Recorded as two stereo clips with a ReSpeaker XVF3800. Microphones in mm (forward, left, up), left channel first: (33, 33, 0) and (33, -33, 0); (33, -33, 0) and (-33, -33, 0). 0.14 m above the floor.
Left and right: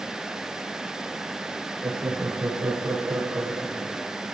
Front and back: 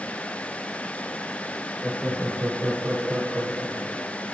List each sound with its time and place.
1.8 s laughter: 95° right, 1.9 m; by 4.1 s 140° right, 3 m